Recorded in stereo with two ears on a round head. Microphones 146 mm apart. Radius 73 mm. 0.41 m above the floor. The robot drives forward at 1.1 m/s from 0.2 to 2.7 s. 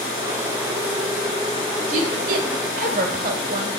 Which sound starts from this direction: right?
A woman speaking, at 1.9 s.